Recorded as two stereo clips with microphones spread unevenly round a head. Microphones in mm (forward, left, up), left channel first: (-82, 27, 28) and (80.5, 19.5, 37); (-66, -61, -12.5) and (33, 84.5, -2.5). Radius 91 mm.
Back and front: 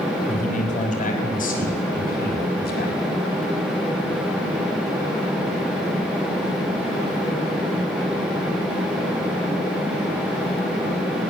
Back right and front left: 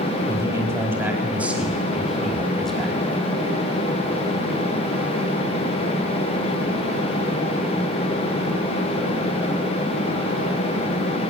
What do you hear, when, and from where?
0.3 s a man speaking: 130° left, 5.5 m; by 3.0 s 150° left, 6 m